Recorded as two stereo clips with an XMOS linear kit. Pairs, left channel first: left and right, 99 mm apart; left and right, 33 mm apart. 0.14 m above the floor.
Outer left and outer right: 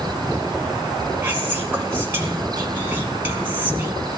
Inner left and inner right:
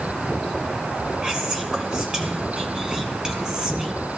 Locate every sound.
1.2 s whispering: 20° right (ahead or behind), 1.2 m